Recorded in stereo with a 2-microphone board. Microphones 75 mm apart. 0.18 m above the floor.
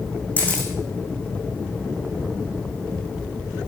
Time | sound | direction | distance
0.4 | a camera shutter | 20° left (ahead or behind) | 5 m